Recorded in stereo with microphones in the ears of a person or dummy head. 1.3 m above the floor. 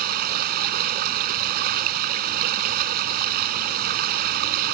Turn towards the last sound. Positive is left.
turn(degrees=-50)  # may be behind; listen again after turning